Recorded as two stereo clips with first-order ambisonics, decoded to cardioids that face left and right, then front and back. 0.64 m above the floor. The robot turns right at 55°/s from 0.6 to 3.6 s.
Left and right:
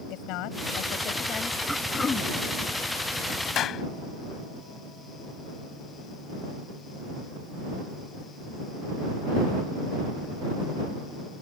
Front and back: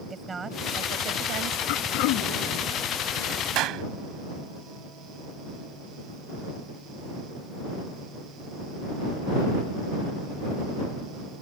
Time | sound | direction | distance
0.1 | a woman speaking | 110° left | ?
1.7 | throat clearing | 5° right | ?
3.5 | a clap | 140° left | ?